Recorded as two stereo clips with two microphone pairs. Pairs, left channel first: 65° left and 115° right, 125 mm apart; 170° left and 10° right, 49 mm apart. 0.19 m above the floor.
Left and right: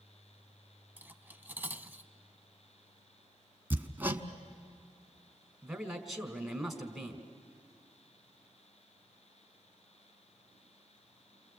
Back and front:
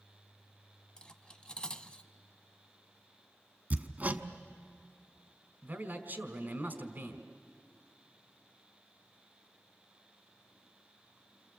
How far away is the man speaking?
About 1.9 m.